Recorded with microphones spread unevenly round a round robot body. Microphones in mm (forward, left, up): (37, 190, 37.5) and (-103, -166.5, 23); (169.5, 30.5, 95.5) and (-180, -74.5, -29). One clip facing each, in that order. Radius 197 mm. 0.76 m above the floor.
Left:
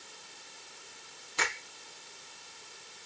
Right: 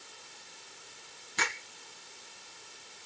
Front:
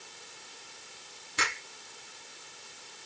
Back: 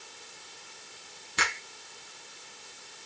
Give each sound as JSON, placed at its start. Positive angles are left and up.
{"t": 1.4, "sound": "a finger snap", "azimuth_deg": -175, "distance_m": 5.5}